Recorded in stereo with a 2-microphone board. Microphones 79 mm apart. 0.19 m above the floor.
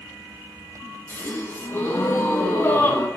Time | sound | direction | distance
1.1 | a gasp | 30° left (ahead or behind) | 1.2 m